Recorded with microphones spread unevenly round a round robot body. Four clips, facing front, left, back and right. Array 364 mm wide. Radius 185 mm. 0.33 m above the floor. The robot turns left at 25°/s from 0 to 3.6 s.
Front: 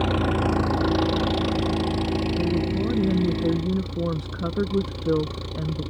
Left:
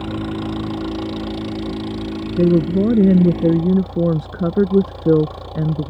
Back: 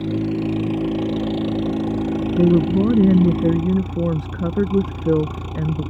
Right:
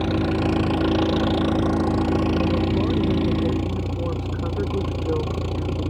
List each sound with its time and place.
0.0 s an engine running: 25° right; by 5.9 s 115° right
2.4 s a woman speaking: 140° left; by 5.9 s 105° left